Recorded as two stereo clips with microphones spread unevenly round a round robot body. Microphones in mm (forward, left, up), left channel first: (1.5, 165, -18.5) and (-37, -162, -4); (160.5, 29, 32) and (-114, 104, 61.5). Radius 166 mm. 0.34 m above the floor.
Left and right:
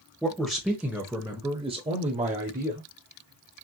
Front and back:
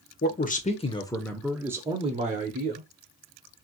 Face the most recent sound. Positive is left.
turn(degrees=-155)